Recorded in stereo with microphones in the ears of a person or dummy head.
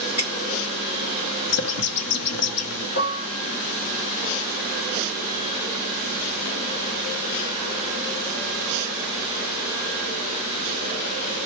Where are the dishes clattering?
55° left (ahead or behind), 1.8 m.